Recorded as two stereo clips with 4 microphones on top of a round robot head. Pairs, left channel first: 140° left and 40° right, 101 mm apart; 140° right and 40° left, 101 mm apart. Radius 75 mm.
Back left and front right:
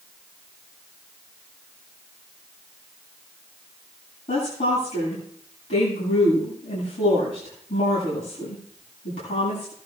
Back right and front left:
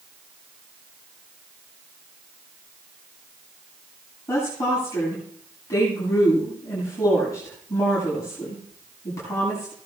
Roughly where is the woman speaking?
Behind.